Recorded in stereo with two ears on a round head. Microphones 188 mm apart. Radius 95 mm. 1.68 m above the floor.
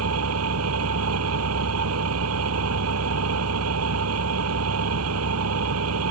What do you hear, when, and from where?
0.0 s an engine running: 85° right